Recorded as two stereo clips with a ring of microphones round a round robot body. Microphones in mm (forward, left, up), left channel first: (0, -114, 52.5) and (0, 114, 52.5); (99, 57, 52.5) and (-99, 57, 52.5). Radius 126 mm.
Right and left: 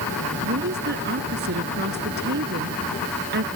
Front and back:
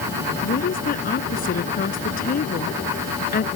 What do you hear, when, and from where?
0.4 s a woman speaking: 45° left